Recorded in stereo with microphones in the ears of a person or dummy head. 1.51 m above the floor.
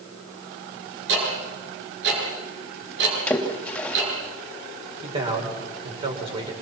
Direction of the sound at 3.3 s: 10° left (ahead or behind).